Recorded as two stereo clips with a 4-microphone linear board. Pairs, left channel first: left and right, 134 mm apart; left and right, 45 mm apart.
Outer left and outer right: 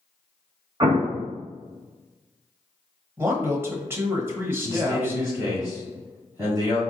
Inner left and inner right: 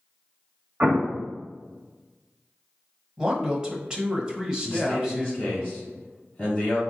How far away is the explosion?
About 1.1 m.